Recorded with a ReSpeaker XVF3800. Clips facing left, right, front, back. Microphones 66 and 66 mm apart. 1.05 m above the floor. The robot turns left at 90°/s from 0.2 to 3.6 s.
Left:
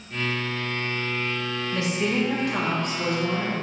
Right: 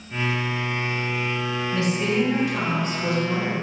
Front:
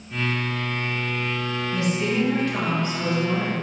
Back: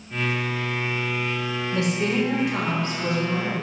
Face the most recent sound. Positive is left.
turn(degrees=0)